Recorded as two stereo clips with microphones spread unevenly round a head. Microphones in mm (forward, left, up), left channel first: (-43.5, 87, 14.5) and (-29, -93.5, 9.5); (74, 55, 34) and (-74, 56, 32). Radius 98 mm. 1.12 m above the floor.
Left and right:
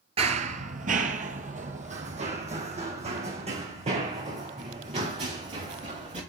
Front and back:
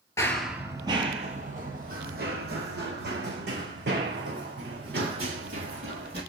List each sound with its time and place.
0.2 s running footsteps: 60° right, 1.2 m; by 6.2 s 145° right, 8 m